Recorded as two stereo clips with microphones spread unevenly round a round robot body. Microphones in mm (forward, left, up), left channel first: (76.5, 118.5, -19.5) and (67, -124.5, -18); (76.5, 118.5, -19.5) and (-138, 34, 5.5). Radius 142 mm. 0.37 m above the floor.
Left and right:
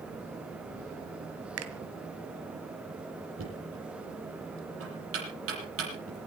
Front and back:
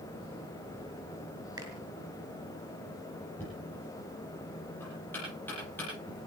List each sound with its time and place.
1.6 s a finger snap: 80° right, 1.8 m
3.4 s knocking: 60° right, 8.5 m